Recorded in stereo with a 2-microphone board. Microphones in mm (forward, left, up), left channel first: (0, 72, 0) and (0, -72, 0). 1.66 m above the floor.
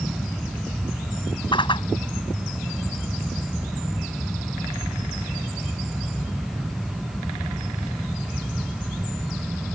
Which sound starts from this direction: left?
A whoosh, at 1.5 s.